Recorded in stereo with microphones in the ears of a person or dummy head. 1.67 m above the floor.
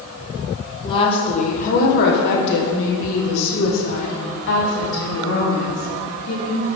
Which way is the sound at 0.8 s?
30° left (ahead or behind).